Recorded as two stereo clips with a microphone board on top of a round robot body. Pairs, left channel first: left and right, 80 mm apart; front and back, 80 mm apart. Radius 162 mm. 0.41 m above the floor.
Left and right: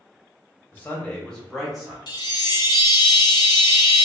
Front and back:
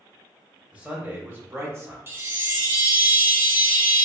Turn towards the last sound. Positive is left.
turn(degrees=120)